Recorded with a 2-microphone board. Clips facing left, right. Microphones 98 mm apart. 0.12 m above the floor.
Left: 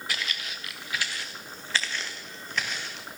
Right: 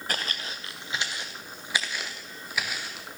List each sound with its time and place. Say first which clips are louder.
0.1 s footsteps: right 3 dB; 45° right (ahead or behind), 0.8 m; by 3.1 s 5° right (ahead or behind), 2.5 m